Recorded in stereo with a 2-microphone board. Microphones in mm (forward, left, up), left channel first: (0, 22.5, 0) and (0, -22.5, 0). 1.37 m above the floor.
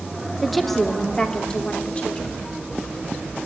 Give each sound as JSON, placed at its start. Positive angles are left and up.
{"t": 0.4, "sound": "a woman speaking", "side_deg": 0, "distance_m": 2.5}